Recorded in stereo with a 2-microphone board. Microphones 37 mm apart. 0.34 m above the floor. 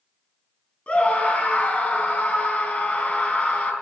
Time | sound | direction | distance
0.9 | a scream | 35° left (ahead or behind) | 3.5 m